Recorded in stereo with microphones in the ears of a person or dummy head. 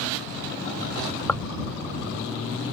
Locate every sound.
1.3 s tearing paper: 10° left (ahead or behind)